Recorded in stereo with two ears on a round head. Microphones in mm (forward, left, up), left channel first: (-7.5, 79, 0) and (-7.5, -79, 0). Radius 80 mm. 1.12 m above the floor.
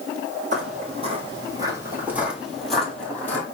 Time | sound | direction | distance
0.5 | footsteps | 45° right (ahead or behind) | 1.5 m